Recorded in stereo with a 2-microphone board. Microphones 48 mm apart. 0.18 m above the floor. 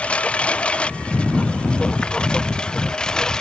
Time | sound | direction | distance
0.0 | a lawn mower | 25° left (ahead or behind) | ?